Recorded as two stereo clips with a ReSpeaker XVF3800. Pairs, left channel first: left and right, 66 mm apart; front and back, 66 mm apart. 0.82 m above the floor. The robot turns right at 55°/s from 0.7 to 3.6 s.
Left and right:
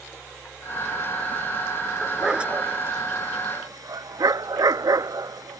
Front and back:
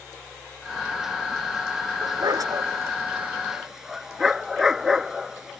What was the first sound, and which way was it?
A dog barking, 175° left.